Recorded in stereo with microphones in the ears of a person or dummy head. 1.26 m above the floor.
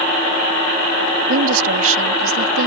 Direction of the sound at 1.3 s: 85° right.